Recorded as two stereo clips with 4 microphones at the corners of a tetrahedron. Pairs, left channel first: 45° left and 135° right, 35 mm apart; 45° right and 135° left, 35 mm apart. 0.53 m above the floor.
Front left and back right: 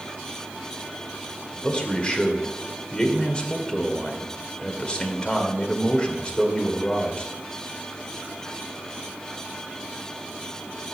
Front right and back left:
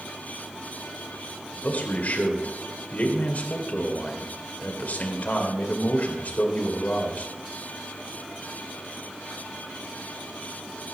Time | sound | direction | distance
1.5 | a man speaking | 15° right | 2 m